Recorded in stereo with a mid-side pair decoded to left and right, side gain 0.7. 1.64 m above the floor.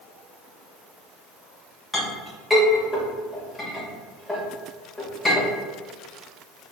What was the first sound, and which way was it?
A clink, 10° left.